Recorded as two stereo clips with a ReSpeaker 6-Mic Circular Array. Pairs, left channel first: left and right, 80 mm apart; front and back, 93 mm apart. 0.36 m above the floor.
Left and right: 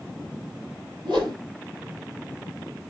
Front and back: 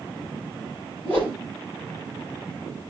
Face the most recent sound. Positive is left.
turn(degrees=-70)